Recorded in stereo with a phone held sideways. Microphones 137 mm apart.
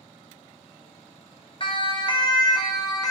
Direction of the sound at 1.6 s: 40° left (ahead or behind).